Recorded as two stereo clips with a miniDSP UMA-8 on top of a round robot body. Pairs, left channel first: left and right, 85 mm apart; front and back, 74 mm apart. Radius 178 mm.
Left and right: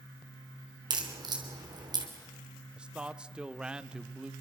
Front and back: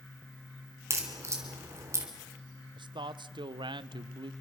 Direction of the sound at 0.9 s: 130° right.